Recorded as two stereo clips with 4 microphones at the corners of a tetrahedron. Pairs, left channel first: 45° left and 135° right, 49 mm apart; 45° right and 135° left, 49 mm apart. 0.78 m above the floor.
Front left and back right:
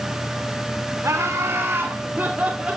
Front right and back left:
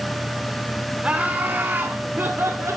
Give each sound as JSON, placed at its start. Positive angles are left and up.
{"t": 1.0, "sound": "laughter", "azimuth_deg": -160, "distance_m": 3.0}